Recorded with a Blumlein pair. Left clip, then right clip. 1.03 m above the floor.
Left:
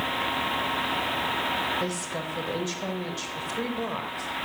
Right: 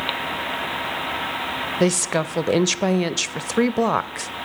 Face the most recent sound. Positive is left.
turn(degrees=-35)